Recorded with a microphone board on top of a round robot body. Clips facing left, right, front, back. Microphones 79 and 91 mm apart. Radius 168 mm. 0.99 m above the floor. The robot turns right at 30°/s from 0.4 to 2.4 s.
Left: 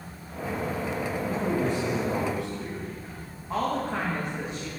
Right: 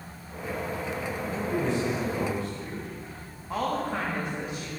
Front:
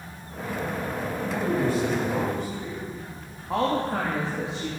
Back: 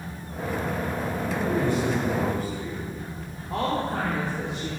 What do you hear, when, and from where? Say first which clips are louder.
1.2 s a man speaking: left 1 dB, even; 35° left, 3 m; by 2.8 s 70° left, 3 m
3.5 s a woman speaking: left 1 dB, front 2 dB; straight ahead, 2.5 m